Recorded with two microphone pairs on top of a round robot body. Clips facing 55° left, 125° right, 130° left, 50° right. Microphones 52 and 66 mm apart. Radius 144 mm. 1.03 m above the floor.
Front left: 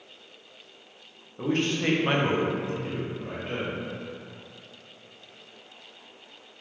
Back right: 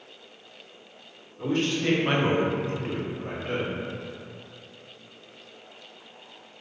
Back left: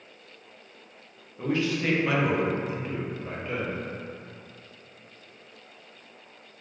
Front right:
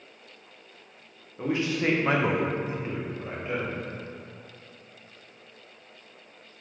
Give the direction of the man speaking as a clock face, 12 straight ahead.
11 o'clock.